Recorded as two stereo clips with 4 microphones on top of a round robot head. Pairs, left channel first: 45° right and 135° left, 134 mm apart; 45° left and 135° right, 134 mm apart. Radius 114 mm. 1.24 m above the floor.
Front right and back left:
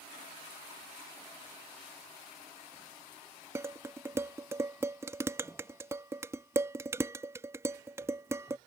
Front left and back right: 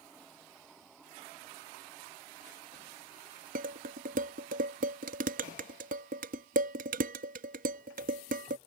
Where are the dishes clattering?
155° right.